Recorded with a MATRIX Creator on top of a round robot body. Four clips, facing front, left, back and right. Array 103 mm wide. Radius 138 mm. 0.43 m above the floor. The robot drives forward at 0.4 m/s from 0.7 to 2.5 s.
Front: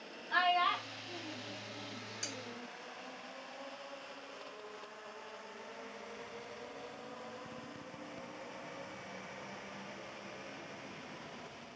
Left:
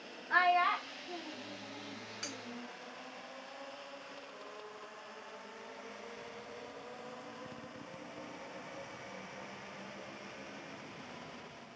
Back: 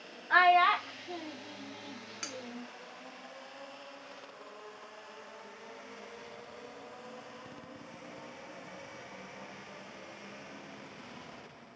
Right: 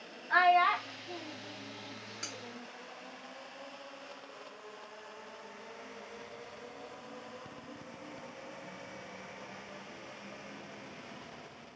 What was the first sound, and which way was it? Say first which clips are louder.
A child speaking: right 4 dB, back 8 dB; 170° right.